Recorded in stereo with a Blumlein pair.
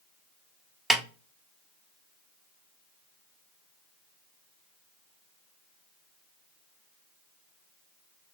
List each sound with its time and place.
0.9 s a snare drum: 5° right, 0.7 m